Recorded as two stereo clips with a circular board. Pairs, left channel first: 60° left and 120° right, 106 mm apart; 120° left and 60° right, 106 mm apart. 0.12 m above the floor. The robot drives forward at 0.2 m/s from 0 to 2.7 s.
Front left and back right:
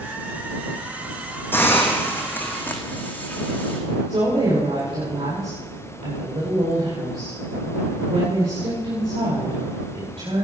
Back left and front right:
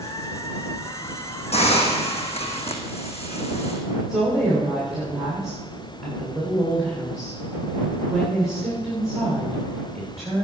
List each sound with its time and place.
1.5 s a hiss: 130° left, 2.5 m; by 3.8 s 135° left, 2.5 m
4.1 s a woman speaking: 150° right, 9.5 m